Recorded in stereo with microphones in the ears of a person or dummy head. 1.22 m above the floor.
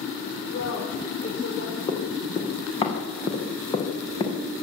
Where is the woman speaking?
55° left (ahead or behind), 5.5 m; by 1.8 s 50° left (ahead or behind), 5 m.